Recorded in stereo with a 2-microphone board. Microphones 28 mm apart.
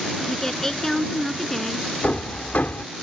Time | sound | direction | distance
0.2 | a woman speaking | 15° left (ahead or behind) | ?
2.0 | hammering | 80° left | ?